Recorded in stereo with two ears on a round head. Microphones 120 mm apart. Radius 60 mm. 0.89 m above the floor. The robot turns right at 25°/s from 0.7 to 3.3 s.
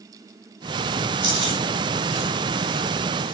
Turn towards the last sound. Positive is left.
turn(degrees=-85)